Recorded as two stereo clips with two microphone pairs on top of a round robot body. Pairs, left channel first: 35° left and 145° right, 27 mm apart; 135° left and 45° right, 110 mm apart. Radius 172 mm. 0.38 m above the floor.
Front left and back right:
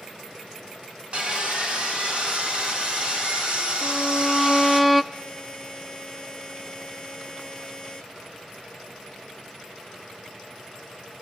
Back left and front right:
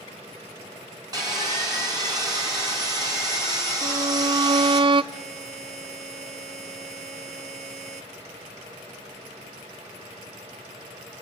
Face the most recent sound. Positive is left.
turn(degrees=-30)